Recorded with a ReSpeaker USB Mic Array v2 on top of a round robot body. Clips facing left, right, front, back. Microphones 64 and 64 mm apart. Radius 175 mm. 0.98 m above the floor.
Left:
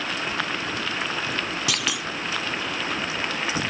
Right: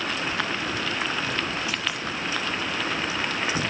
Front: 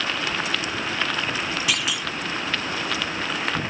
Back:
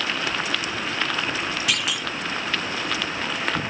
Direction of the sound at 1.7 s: 90° left.